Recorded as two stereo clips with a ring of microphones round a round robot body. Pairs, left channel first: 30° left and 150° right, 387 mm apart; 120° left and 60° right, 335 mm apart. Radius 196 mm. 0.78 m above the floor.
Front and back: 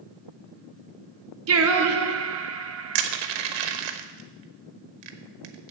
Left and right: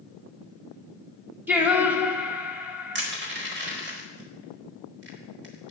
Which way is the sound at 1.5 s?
140° right.